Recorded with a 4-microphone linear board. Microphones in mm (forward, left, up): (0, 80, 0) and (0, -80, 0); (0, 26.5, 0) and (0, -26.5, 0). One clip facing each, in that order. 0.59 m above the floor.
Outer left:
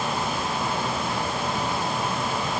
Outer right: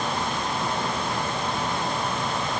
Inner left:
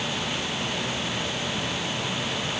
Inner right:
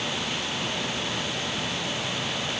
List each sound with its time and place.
Only background noise.